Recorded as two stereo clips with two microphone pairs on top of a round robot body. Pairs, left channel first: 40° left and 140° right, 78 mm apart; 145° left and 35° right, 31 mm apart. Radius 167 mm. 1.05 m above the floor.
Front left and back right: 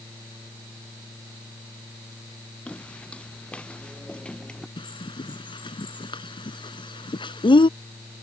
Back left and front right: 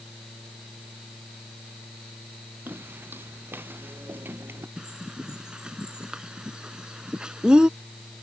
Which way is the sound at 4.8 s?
30° left.